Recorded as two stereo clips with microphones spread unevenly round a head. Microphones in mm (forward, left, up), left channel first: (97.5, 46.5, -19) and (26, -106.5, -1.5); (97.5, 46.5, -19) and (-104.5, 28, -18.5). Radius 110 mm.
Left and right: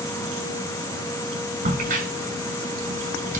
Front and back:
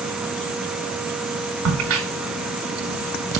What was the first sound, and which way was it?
A crack, 170° right.